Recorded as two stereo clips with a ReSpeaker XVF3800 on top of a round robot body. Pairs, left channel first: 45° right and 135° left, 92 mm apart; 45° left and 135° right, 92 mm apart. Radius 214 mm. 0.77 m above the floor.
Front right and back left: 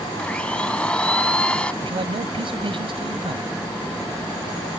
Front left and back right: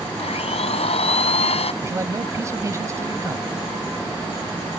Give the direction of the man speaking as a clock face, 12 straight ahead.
7 o'clock.